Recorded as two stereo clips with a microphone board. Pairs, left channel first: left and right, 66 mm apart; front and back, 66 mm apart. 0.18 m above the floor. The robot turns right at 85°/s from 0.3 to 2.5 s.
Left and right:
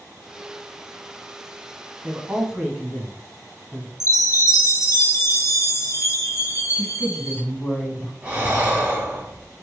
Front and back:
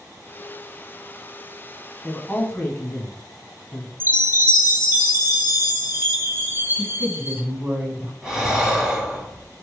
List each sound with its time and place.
2.0 s a man speaking: 55° right, 1.0 m; by 3.9 s 15° right, 1.0 m
4.0 s a chime: 125° left, 1.2 m
6.8 s a woman speaking: 155° left, 1.3 m
8.2 s breathing: 110° right, 1.3 m